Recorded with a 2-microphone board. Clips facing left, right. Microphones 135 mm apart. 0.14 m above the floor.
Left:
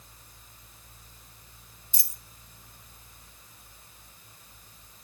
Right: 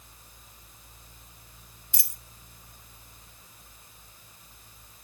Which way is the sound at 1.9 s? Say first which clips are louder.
Right 7 dB; 75° right (ahead or behind).